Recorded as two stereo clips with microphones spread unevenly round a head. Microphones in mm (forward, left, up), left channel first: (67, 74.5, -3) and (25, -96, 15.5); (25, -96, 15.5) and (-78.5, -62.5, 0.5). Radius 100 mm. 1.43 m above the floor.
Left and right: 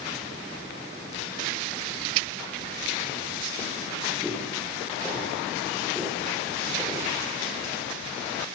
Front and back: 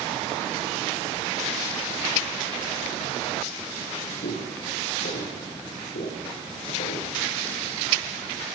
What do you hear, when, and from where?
4.2 s footsteps: 10° right, 10 m; by 7.1 s 15° right, 11.5 m